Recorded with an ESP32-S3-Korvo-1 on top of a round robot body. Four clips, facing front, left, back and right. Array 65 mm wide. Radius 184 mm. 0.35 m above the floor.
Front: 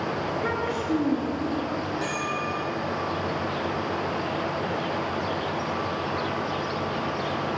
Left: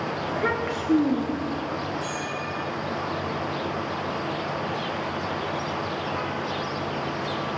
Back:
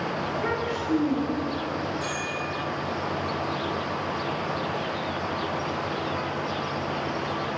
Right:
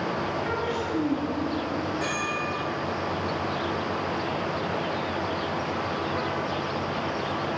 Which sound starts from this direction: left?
A child speaking, at 0.3 s.